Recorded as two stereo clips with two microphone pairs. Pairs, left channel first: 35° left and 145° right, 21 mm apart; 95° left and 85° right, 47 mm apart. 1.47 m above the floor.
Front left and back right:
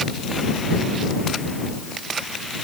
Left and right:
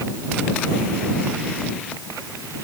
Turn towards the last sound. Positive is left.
No sound to turn to.